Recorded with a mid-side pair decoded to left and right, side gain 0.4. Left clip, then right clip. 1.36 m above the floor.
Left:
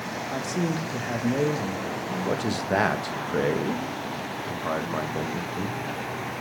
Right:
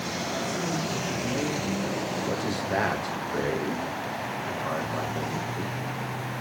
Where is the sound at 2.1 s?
40° left, 1.7 m.